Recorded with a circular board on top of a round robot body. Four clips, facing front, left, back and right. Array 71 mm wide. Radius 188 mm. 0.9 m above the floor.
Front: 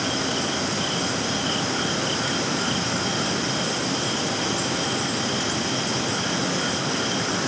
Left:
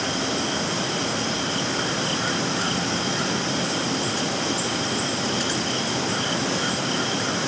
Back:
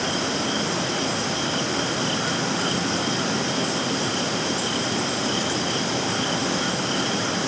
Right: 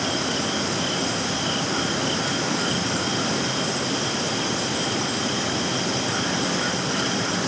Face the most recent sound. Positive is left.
No sound to turn to.